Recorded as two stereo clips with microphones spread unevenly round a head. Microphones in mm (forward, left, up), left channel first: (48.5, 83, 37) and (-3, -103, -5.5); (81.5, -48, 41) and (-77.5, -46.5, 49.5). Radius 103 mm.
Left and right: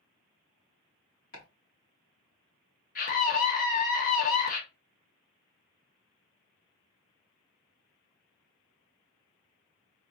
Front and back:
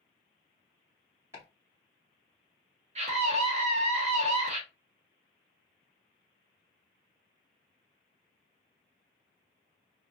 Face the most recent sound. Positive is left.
turn(degrees=125)